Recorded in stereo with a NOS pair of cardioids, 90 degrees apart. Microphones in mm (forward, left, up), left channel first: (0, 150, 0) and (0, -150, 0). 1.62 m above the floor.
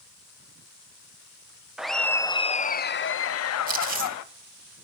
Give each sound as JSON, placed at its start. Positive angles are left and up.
{"t": 1.8, "sound": "laughter", "azimuth_deg": -5, "distance_m": 1.1}
{"t": 3.7, "sound": "chewing", "azimuth_deg": -30, "distance_m": 2.0}